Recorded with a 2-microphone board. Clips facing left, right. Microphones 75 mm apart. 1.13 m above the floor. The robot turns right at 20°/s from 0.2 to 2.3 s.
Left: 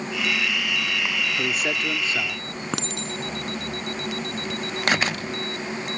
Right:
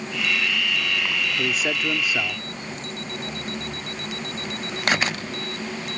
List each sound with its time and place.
1.4 s a man speaking: 5° left (ahead or behind); by 2.4 s 15° right (ahead or behind)
2.7 s a clink: 80° left